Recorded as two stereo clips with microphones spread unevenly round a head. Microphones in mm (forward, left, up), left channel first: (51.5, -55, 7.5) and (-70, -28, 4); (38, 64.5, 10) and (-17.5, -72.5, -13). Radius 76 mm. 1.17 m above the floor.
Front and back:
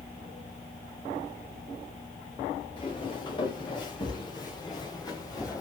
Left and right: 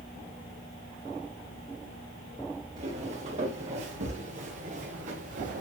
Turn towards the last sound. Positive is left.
turn(degrees=-70)